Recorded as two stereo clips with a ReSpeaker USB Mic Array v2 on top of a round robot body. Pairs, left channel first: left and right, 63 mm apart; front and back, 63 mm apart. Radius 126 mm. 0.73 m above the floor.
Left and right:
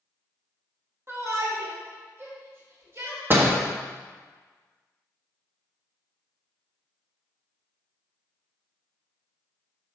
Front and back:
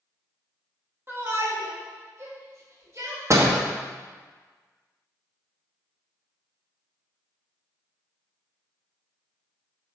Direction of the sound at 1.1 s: 130° right.